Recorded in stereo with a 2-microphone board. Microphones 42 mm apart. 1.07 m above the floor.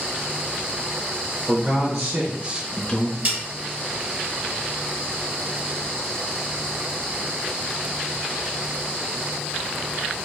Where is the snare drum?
45° right (ahead or behind), 1.7 m.